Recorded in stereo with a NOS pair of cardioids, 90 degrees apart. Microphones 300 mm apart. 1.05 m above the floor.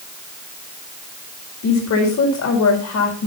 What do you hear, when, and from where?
1.6 s a woman speaking: 60° left, 5 m